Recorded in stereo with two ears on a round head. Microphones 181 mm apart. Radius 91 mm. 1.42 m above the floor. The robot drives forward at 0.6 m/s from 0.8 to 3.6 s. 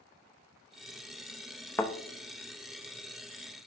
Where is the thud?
10° left (ahead or behind), 0.7 m.